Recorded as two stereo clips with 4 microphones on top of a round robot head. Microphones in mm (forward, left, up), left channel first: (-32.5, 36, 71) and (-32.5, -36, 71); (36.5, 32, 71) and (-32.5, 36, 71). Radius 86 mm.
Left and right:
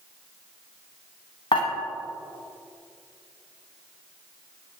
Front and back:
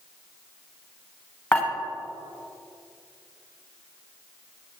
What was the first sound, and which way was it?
Dishes clattering, 55° left.